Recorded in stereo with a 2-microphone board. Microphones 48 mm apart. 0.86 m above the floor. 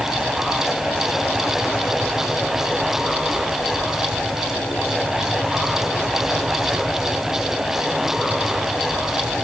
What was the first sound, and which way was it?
Only background noise.